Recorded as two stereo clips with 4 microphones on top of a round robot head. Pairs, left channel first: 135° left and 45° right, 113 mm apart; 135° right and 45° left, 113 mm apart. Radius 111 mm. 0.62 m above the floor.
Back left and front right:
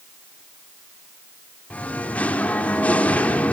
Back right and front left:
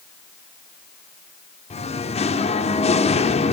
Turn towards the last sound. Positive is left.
turn(degrees=-145)